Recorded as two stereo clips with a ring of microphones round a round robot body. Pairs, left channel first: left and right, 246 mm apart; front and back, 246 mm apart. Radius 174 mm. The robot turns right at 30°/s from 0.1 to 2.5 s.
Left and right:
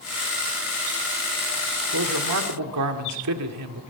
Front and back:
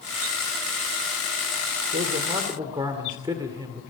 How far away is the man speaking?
About 1.9 m.